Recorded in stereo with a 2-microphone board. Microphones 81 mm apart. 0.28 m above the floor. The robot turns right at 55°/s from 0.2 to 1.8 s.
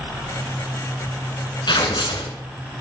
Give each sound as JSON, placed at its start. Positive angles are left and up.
{"t": 1.7, "sound": "tearing paper", "side_deg": 70, "distance_m": 2.0}